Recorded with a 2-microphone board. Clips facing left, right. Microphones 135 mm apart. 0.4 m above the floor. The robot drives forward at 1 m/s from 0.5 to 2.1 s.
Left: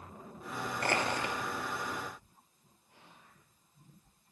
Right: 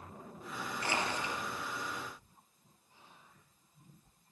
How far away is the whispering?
About 6.5 m.